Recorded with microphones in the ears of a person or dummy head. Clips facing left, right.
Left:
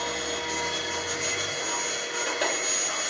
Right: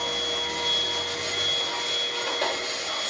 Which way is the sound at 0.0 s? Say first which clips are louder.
Even; 15° left (ahead or behind).